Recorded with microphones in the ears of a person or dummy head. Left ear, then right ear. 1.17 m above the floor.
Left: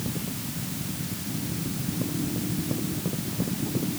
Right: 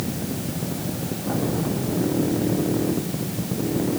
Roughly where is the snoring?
No snoring in this recording.